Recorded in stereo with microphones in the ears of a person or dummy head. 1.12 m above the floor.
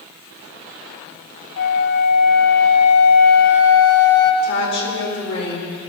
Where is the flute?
60° left (ahead or behind), 0.9 m.